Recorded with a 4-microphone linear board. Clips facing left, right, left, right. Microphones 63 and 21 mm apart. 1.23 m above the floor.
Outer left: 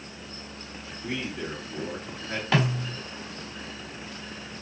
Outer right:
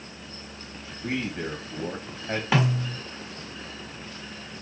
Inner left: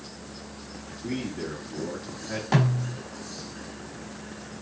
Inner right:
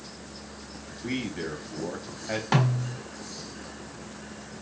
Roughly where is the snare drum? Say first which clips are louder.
Outer right 1 dB, inner left 1 dB; centre.